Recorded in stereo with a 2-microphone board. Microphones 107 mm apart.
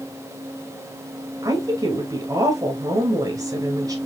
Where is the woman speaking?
35° right (ahead or behind), 1.3 m.